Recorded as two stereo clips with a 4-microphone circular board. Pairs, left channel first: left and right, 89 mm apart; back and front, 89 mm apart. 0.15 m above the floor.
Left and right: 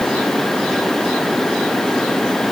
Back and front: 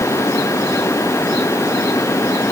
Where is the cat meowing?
I don't hear a cat meowing.